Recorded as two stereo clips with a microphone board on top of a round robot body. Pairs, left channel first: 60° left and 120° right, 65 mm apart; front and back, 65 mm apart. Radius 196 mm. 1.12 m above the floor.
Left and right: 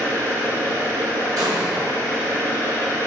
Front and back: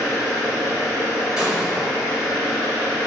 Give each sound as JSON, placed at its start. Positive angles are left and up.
{"t": 0.0, "sound": "an engine running", "azimuth_deg": 90, "distance_m": 1.6}
{"t": 1.4, "sound": "an explosion", "azimuth_deg": -100, "distance_m": 0.7}